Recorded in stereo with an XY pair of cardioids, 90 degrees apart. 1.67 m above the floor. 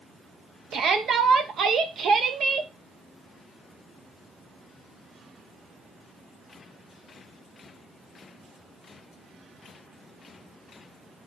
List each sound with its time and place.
0.7 s a shout: 65° right, 1.2 m